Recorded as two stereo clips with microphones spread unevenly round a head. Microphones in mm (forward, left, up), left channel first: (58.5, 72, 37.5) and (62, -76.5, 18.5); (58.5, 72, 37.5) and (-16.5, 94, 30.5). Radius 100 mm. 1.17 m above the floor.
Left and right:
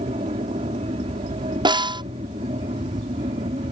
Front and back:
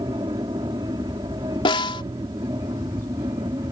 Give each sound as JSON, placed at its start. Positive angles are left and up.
{"t": 0.0, "sound": "an aircraft", "azimuth_deg": -145}
{"t": 1.6, "sound": "a snare drum", "azimuth_deg": -30}